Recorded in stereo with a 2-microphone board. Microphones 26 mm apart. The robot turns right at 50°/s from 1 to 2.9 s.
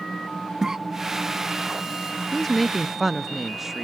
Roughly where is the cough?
Right.